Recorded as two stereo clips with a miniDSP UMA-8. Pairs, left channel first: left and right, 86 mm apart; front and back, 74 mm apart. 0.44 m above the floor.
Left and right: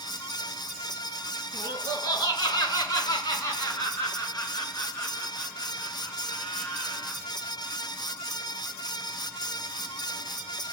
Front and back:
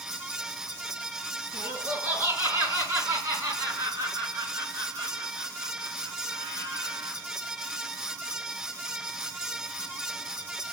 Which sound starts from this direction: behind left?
Laughter, at 1.5 s.